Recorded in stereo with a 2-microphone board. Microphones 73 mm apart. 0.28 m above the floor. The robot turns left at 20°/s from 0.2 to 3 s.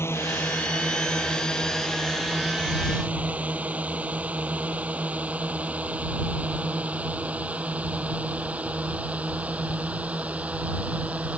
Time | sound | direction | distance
0.0 | a drone | 35° left (ahead or behind) | ?